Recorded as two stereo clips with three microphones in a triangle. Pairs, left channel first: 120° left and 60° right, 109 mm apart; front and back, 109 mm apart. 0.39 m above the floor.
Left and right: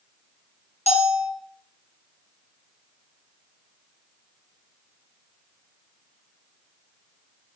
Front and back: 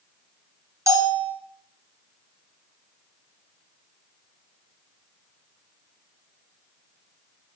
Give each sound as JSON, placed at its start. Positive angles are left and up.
{"t": 0.9, "sound": "a bell", "azimuth_deg": 120, "distance_m": 1.6}